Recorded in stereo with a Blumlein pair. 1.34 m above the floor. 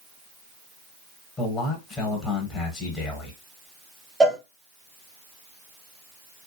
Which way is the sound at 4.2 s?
5° right.